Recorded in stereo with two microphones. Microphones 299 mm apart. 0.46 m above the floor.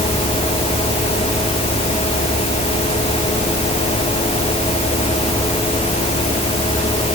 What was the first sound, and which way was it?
Only background noise.